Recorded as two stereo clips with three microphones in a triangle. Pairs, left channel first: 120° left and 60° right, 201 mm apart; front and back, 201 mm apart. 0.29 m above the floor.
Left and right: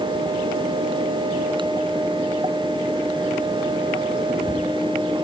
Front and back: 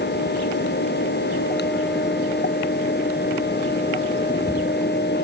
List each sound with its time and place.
Only background noise.